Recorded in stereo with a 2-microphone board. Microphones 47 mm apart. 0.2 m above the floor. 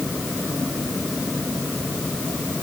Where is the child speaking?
No child speaking in this recording.